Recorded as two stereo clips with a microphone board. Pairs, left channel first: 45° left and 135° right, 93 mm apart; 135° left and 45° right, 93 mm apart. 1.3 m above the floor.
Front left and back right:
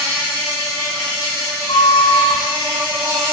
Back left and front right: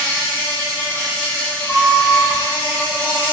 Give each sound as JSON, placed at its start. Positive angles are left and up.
{"t": 0.0, "sound": "an insect", "azimuth_deg": -155, "distance_m": 1.8}
{"t": 1.7, "sound": "a flute", "azimuth_deg": 60, "distance_m": 0.6}